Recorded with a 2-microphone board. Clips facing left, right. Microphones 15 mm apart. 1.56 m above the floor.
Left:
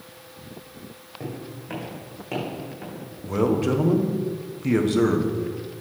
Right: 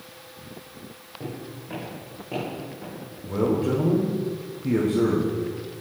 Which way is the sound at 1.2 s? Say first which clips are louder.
Left 1 dB; 55° left (ahead or behind).